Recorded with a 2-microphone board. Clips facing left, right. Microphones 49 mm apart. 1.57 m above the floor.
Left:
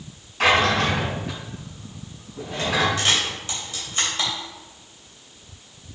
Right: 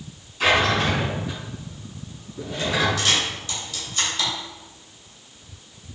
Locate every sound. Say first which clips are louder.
0.4 s a drawer: left 1 dB; 50° left (ahead or behind), 3.5 m
3.0 s a camera shutter: even; 30° left (ahead or behind), 3.5 m